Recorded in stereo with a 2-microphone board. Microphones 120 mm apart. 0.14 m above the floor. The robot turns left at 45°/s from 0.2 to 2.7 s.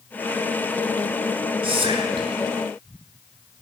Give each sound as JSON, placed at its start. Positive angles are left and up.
{"t": 1.6, "sound": "whispering", "azimuth_deg": -85, "distance_m": 2.0}